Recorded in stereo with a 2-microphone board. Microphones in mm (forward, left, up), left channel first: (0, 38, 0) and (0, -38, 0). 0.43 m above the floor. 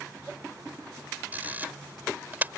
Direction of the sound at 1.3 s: 25° right (ahead or behind).